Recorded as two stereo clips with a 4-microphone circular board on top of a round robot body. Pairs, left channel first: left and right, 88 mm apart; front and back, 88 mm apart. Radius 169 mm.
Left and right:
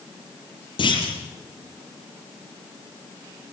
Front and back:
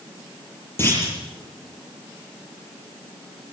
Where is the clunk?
65° left, 7.5 m.